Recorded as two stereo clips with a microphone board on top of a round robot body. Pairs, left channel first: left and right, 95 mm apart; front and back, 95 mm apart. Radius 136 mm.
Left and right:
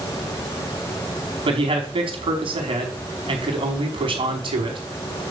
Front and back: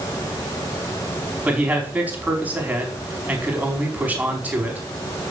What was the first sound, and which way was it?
A man speaking, 105° right.